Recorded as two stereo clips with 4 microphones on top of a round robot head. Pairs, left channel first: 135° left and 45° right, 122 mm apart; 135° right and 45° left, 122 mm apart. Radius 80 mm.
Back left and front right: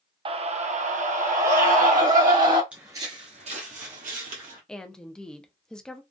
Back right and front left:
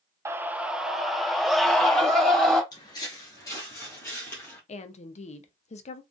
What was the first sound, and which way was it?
A scream, 15° right.